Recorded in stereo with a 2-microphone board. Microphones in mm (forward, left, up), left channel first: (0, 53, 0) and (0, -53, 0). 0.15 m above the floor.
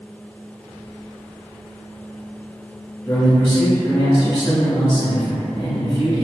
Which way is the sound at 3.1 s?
20° left (ahead or behind).